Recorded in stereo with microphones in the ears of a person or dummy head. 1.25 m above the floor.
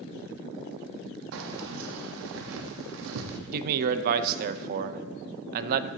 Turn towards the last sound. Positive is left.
turn(degrees=-50)  # may be behind; listen again after turning